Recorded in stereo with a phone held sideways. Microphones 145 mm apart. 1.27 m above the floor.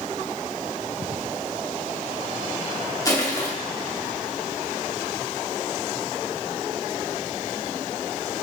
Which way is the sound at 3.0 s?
25° left (ahead or behind).